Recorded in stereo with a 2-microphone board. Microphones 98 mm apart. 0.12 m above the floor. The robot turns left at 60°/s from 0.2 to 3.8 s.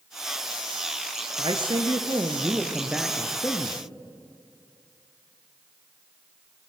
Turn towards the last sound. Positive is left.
turn(degrees=135)